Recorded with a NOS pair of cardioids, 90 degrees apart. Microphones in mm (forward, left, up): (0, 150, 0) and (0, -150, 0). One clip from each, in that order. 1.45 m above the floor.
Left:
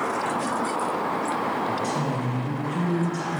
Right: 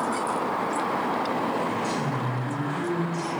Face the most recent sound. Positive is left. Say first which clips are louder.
# left 1 dB
turn(degrees=40)